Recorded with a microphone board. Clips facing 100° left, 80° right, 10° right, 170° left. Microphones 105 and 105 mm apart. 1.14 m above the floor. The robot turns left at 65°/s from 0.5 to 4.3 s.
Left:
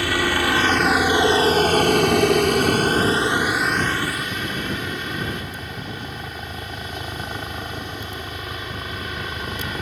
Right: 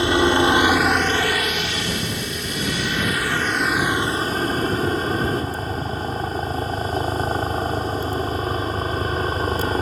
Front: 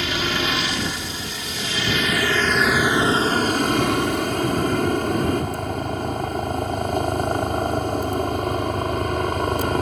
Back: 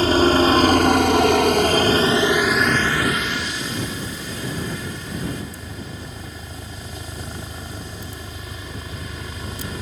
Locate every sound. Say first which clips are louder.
0.0 s a helicopter: right 5 dB, back 9 dB; 145° right; by 9.8 s 30° right